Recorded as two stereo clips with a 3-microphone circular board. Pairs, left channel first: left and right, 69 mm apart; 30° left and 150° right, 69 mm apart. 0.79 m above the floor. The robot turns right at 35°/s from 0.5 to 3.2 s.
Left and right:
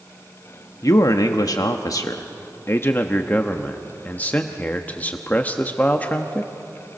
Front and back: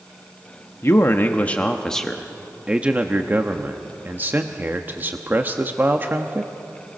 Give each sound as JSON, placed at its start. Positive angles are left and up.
{"t": 0.8, "sound": "a man speaking", "azimuth_deg": 70, "distance_m": 0.9}